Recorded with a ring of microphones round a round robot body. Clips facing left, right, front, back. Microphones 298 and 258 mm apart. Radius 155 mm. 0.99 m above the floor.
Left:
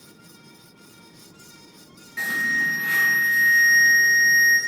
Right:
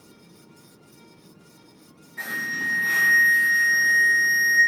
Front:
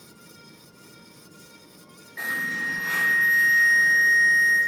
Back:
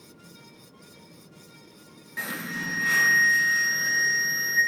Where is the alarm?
135° left, 1.0 m.